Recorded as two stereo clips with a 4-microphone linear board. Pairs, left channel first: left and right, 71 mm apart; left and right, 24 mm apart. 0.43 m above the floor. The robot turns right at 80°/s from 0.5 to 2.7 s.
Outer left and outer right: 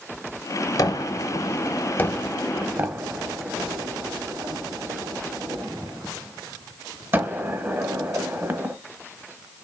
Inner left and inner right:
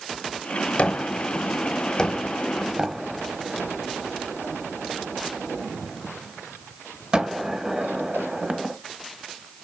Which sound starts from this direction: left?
A gunshot, at 0.8 s.